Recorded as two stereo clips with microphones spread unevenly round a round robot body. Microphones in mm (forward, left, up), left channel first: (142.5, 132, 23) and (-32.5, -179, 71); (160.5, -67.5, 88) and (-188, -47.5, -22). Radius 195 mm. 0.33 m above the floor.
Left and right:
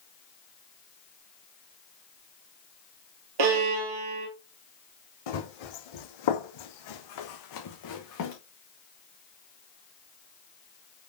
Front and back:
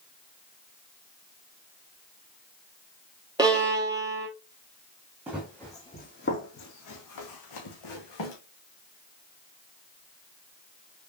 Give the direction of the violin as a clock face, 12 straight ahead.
3 o'clock.